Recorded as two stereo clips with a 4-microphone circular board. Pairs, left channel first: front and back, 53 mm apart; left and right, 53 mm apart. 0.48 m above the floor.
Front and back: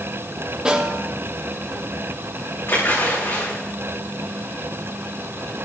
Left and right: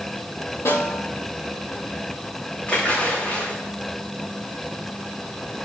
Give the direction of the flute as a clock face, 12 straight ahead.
I don't hear a flute.